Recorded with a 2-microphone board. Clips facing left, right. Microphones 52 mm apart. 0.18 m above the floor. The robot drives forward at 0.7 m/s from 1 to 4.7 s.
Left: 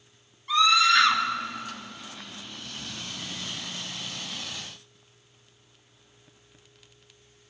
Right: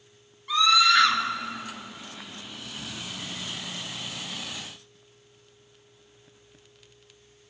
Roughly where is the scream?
Centre.